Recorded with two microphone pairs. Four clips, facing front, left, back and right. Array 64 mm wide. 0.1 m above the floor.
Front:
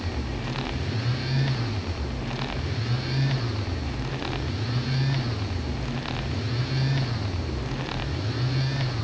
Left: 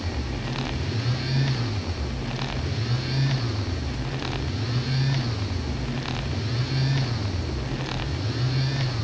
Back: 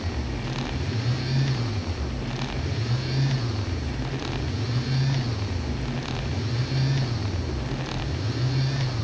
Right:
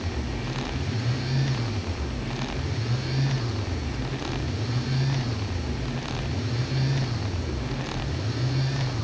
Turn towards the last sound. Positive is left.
No sound to turn to.